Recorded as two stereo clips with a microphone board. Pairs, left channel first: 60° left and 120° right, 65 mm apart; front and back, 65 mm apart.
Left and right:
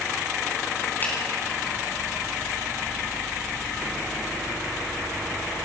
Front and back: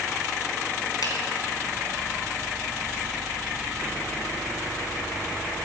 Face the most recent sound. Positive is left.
turn(degrees=0)